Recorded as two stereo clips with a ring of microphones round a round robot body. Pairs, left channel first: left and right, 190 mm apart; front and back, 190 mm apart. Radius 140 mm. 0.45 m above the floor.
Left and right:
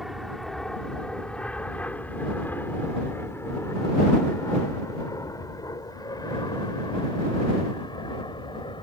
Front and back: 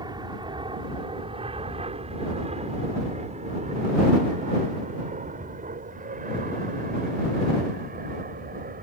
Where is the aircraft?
Straight behind; by 8.8 s 150° left.